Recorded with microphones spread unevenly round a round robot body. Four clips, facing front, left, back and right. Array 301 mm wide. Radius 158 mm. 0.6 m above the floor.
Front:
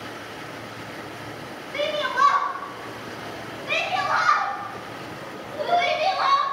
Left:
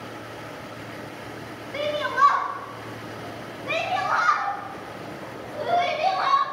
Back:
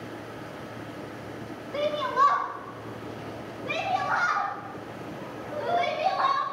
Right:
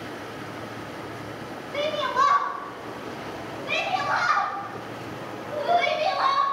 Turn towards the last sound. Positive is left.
turn(degrees=-130)